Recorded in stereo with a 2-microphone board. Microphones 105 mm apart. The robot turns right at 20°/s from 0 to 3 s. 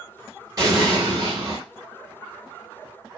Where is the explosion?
40° right (ahead or behind), 1.2 m; by 1.6 s 60° right (ahead or behind), 1.2 m.